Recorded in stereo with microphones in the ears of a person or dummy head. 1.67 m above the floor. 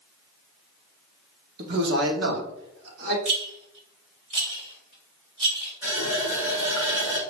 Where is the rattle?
35° right (ahead or behind), 2.5 m.